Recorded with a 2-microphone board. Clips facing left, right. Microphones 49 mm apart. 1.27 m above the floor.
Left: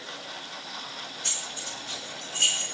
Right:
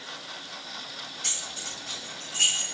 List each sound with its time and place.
1.2 s keys jangling: 85° right, 8 m